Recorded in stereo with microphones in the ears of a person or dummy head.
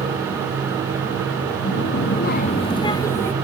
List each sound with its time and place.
1.6 s a child speaking: 65° left (ahead or behind), 1.0 m; by 3.3 s 10° left (ahead or behind), 1.4 m